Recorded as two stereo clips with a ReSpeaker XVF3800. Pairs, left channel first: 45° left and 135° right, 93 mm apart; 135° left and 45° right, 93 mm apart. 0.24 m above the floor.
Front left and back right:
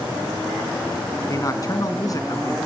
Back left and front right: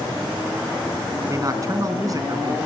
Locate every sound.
1.3 s a man speaking: straight ahead, 3 m